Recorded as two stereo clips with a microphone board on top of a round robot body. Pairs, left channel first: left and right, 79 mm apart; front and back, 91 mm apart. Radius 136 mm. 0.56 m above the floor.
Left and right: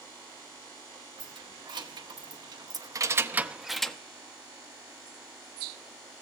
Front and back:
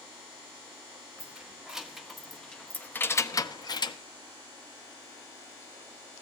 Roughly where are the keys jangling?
Right.